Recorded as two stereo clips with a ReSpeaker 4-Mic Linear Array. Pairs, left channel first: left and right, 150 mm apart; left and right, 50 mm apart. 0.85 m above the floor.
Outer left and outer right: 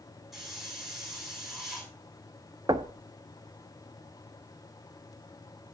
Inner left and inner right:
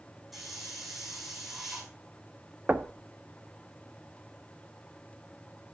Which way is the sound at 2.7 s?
30° right (ahead or behind).